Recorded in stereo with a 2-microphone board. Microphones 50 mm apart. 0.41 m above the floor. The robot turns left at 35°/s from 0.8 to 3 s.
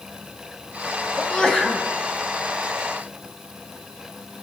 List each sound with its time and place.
1.2 s a sneeze: 25° left (ahead or behind), 3 m; by 1.9 s centre (ahead or behind), 3 m